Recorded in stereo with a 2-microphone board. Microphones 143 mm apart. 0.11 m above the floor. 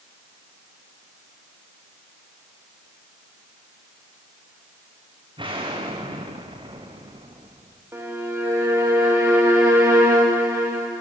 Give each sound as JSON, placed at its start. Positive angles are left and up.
{"t": 5.4, "sound": "an explosion", "side_deg": -35, "distance_m": 5.5}
{"t": 7.9, "sound": "a violin", "side_deg": -15, "distance_m": 5.5}